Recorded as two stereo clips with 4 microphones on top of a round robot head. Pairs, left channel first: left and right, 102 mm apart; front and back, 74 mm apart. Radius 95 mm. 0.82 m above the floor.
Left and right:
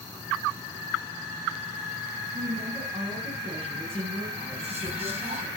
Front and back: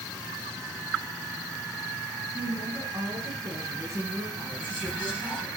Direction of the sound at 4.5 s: 80° right.